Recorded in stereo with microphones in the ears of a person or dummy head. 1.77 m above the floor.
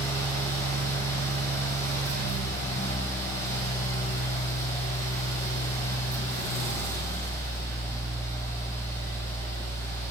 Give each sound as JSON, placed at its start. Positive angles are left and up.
{"t": 0.0, "sound": "a fan", "side_deg": 10, "distance_m": 1.2}